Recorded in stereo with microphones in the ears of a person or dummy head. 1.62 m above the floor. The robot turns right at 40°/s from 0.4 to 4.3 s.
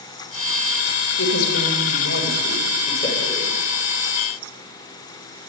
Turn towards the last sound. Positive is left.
turn(degrees=-165)